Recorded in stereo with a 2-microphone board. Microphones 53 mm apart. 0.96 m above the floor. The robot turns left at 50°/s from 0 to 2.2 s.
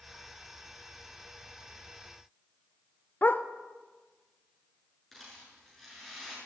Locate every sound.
3.2 s a dog barking: 35° left (ahead or behind), 0.7 m
5.1 s a rattle: 5° left (ahead or behind), 7 m